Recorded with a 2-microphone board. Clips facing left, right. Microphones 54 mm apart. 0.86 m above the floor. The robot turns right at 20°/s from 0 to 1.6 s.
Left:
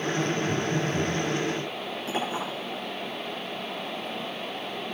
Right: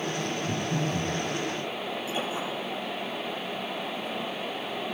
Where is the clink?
45° left (ahead or behind), 9 m.